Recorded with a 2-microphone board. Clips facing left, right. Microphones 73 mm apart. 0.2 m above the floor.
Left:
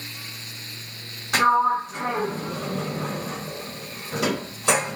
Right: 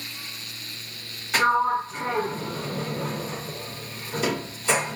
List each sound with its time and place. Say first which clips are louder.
1.3 s a sliding door: left 2 dB; 80° left, 1.8 m